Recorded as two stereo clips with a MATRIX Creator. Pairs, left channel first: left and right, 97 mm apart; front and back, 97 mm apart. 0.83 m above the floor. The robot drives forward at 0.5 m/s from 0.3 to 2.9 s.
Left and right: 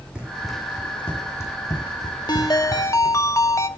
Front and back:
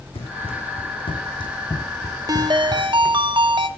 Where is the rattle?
No rattle in this recording.